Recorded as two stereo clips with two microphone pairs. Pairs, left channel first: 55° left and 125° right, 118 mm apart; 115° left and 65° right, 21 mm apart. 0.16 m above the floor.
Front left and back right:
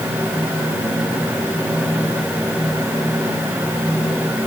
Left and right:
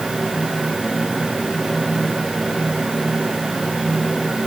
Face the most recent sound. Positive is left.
No sound to turn to.